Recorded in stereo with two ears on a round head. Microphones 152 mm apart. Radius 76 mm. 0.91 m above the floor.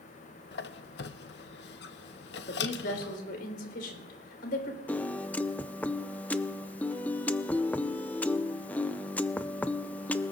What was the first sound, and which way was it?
A squeak, 70° left (ahead or behind).